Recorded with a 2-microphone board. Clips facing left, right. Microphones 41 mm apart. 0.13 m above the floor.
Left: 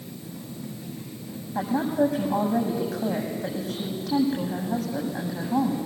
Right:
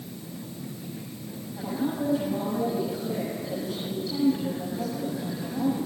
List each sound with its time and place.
1.6 s a woman speaking: 60° left (ahead or behind), 7 m